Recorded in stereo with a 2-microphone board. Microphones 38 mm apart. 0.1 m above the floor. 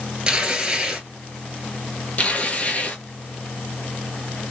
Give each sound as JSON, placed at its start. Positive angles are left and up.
{"t": 0.3, "sound": "tearing paper", "side_deg": -25, "distance_m": 1.4}
{"t": 2.2, "sound": "tearing paper", "side_deg": 35, "distance_m": 0.9}